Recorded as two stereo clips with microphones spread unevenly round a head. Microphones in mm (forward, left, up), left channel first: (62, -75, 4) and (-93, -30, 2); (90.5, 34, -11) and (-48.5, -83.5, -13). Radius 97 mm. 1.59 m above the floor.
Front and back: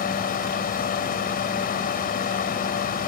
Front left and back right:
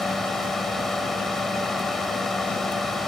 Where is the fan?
50° right.